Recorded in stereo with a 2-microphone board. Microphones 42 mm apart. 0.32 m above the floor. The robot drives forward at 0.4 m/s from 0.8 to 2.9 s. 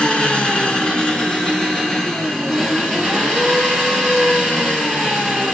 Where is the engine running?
25° left (ahead or behind), 1.2 m; by 5.5 s 15° left (ahead or behind), 2.0 m.